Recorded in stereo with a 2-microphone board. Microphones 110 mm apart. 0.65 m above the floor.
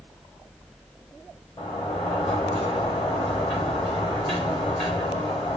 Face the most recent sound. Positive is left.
turn(degrees=55)  # may be behind; listen again after turning